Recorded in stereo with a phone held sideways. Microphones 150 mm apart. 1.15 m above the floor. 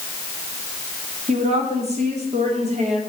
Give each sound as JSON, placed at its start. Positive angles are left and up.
{"t": 1.3, "sound": "a woman speaking", "side_deg": -45, "distance_m": 2.5}